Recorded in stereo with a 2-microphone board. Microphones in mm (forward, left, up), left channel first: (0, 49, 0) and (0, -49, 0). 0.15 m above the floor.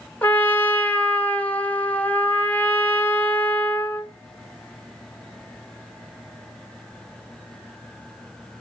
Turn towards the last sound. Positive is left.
turn(degrees=15)  # may be behind; listen again after turning